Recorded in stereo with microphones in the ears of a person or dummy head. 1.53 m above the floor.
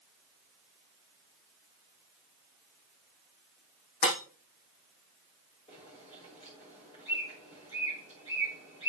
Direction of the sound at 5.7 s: 35° left (ahead or behind).